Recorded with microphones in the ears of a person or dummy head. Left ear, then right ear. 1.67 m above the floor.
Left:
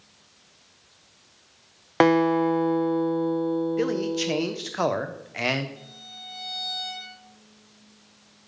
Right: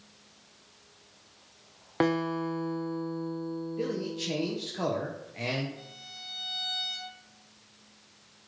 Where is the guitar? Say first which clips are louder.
Left 9 dB; 30° left (ahead or behind), 0.6 m.